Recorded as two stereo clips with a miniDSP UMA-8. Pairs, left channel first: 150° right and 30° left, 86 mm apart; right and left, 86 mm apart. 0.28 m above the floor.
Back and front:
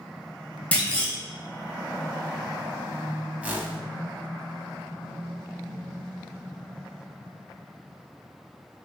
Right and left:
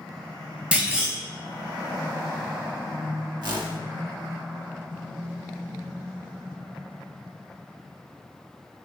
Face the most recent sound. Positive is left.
turn(degrees=100)